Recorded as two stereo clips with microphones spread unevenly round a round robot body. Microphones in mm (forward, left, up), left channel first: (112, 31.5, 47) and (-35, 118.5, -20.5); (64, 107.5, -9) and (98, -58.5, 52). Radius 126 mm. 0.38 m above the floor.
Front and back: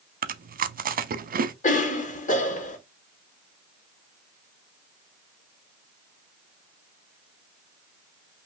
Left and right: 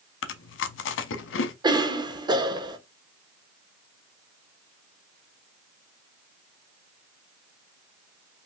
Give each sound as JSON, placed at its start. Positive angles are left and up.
{"t": 0.2, "sound": "chewing", "azimuth_deg": 105, "distance_m": 0.6}
{"t": 1.6, "sound": "a cough", "azimuth_deg": 0, "distance_m": 1.0}